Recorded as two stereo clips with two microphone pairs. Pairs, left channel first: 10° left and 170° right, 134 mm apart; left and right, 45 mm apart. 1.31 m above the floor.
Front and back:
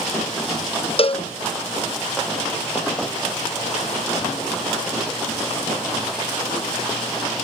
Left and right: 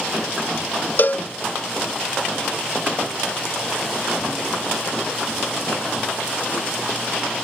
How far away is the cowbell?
About 0.7 m.